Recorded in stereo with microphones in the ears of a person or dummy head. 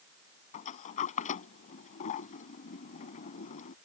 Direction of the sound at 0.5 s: 40° left (ahead or behind).